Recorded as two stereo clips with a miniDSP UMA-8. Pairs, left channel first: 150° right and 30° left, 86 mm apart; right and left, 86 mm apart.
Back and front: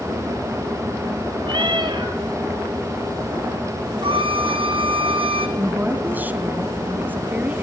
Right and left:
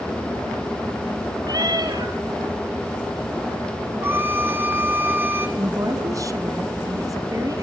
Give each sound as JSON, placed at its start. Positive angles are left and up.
{"t": 1.4, "sound": "a cat meowing", "azimuth_deg": 50, "distance_m": 3.0}
{"t": 4.0, "sound": "a violin", "azimuth_deg": 25, "distance_m": 1.7}
{"t": 5.6, "sound": "a woman speaking", "azimuth_deg": 90, "distance_m": 1.9}